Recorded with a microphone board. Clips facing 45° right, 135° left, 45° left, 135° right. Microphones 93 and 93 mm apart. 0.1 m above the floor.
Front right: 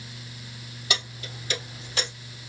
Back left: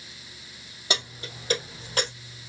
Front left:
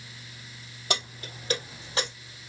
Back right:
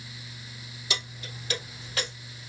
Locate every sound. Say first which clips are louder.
0.9 s keys jangling: back left 1 dB, front left 5 dB; 80° left, 2.5 m; by 2.1 s 110° left, 2 m